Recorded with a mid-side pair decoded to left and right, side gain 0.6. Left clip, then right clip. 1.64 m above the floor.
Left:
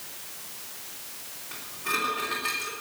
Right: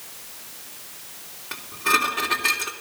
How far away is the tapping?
No tapping in this recording.